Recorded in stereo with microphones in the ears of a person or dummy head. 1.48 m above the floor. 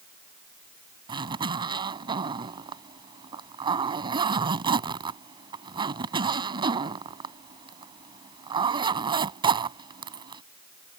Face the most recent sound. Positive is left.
turn(degrees=-20)  # may be behind; listen again after turning